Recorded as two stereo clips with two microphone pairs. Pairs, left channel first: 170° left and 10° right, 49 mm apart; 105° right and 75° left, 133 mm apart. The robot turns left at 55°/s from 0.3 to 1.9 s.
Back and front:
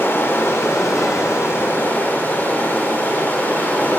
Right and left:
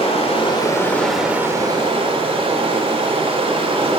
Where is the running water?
150° right, 1.8 m; by 4.0 s 120° left, 1.8 m.